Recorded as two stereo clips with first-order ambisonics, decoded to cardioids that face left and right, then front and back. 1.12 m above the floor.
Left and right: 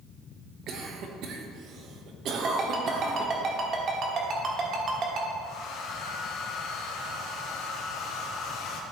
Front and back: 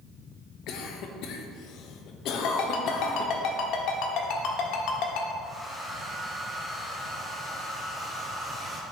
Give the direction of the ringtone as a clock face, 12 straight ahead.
1 o'clock.